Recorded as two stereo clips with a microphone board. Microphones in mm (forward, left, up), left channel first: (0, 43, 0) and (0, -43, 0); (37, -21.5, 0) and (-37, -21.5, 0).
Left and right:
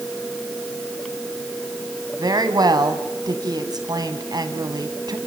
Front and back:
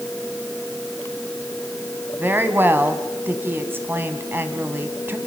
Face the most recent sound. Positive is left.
turn(degrees=-120)